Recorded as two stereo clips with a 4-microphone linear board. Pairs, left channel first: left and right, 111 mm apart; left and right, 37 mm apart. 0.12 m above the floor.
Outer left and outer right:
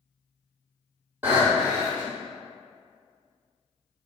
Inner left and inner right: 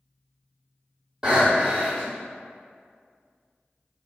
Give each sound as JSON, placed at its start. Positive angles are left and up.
{"t": 1.2, "sound": "breathing", "side_deg": -15, "distance_m": 1.2}